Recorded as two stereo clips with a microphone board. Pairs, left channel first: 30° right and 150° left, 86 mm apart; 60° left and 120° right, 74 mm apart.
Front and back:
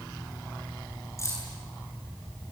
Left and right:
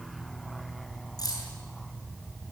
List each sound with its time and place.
1.2 s keys jangling: 25° left, 8 m